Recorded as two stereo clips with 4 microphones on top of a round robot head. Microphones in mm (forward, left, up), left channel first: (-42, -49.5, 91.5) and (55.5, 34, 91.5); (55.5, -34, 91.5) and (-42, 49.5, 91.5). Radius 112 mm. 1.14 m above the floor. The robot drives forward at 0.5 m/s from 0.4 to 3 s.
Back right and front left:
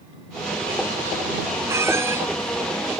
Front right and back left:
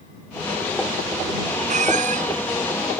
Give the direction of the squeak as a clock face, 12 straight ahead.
8 o'clock.